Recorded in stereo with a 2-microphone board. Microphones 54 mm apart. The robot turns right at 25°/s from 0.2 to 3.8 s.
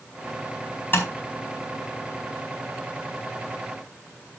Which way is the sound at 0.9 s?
40° left (ahead or behind).